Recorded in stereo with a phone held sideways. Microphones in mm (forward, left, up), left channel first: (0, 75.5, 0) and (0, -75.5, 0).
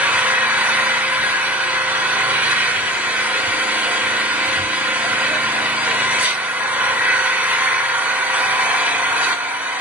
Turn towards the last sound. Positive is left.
turn(degrees=-10)  # may be behind; listen again after turning